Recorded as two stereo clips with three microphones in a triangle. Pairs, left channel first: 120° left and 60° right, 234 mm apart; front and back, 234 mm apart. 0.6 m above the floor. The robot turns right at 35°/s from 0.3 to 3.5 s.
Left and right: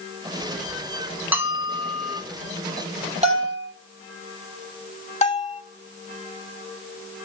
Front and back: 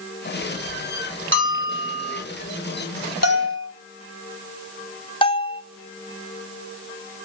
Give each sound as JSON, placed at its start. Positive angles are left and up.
{"t": 1.3, "sound": "a bell", "azimuth_deg": -140, "distance_m": 5.0}
{"t": 3.2, "sound": "a bell", "azimuth_deg": 5, "distance_m": 4.5}
{"t": 5.2, "sound": "a bell", "azimuth_deg": 65, "distance_m": 2.0}